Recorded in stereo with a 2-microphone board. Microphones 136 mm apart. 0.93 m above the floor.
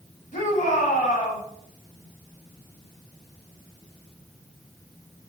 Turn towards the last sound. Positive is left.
turn(degrees=70)  # may be behind; listen again after turning